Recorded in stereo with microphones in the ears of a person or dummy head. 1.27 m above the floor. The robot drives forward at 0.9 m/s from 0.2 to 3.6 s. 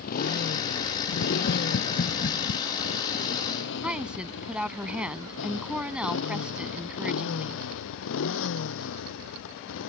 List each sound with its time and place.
0.0 s a motorcycle: 50° left (ahead or behind); by 9.9 s 75° left (ahead or behind)
1.1 s tapping: 55° left (ahead or behind); by 2.6 s 40° left (ahead or behind)
3.8 s a woman speaking: 5° right (ahead or behind)